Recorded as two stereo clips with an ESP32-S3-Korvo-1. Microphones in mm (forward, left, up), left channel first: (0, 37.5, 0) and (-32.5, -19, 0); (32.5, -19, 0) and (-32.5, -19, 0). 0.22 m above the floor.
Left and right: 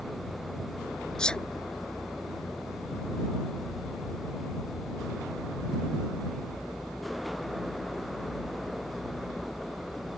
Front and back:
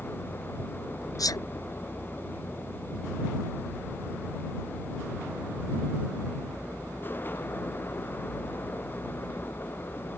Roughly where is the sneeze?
Ahead.